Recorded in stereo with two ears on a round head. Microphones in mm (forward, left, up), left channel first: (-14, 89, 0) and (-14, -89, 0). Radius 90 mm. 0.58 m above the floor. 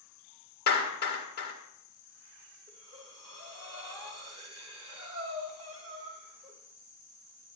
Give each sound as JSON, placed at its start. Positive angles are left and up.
{"t": 0.7, "sound": "a clap", "side_deg": 50, "distance_m": 1.5}
{"t": 2.7, "sound": "breathing", "side_deg": -25, "distance_m": 1.9}